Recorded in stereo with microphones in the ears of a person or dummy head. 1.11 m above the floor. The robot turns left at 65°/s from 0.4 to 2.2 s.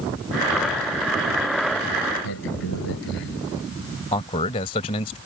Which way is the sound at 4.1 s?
30° left (ahead or behind).